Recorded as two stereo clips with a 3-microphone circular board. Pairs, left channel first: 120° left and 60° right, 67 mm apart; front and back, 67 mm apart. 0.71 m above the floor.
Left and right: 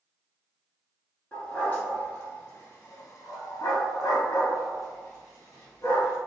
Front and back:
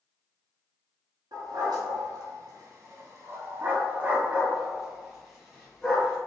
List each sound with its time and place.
1.3 s a dog barking: 170° right, 1.6 m; by 6.2 s 80° left, 1.9 m